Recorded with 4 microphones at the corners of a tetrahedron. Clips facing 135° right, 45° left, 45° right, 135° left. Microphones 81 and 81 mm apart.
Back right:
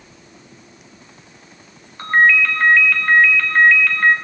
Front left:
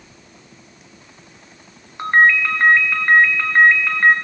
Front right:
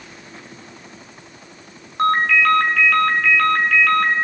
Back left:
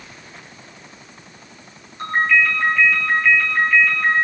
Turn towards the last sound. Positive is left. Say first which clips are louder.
# even, front right 2 dB
turn(degrees=-25)